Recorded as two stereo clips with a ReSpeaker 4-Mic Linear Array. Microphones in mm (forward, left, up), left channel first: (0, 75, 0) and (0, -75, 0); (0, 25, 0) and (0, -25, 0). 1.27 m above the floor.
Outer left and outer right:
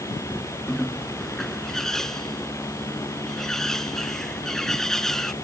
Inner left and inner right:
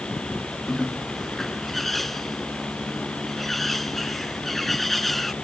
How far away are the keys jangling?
I don't hear keys jangling.